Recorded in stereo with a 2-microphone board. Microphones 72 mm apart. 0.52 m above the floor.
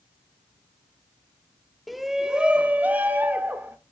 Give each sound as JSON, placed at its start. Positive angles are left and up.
{"t": 1.9, "sound": "a shout", "side_deg": 0, "distance_m": 0.8}